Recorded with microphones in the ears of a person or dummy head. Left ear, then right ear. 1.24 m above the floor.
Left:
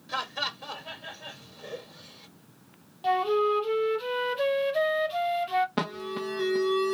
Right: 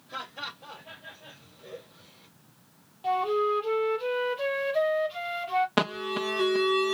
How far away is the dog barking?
No dog barking in this recording.